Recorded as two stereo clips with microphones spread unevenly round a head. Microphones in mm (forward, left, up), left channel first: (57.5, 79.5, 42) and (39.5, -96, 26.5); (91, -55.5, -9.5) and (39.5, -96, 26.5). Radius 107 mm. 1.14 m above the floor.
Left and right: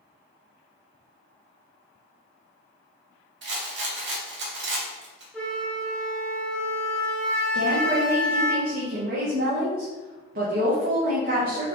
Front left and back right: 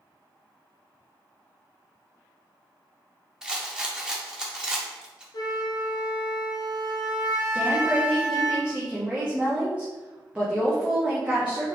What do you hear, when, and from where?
3.4 s a rattle: 80° right, 1.1 m
5.3 s a flute: 10° left, 0.8 m
7.5 s a woman speaking: 65° right, 1.3 m